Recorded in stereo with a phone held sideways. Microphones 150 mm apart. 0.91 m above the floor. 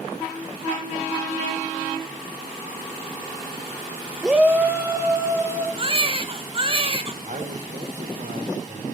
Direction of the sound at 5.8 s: 35° right (ahead or behind).